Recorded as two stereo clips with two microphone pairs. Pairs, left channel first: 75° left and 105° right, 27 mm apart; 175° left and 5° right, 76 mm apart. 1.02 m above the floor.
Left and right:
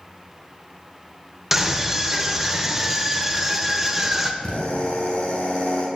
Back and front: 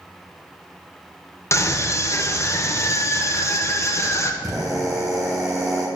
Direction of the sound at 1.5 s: Straight behind.